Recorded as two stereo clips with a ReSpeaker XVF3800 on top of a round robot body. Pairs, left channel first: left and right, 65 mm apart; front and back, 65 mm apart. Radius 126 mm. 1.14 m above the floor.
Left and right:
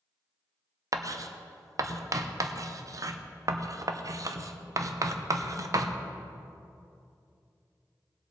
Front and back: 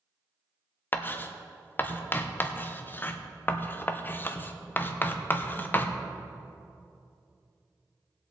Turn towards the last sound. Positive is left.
turn(degrees=-60)